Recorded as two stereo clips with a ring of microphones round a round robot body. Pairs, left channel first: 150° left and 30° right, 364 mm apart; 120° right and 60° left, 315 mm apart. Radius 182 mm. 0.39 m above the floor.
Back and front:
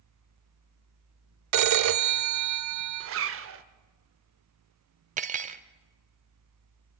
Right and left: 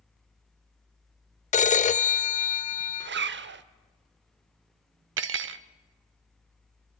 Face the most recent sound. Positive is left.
turn(degrees=30)